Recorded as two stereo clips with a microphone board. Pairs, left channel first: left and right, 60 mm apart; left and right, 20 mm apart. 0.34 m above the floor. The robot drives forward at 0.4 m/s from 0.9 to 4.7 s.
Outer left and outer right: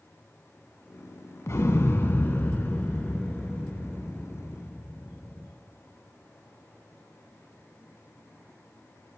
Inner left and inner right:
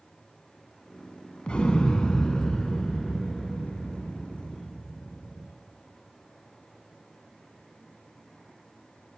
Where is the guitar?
No guitar in this recording.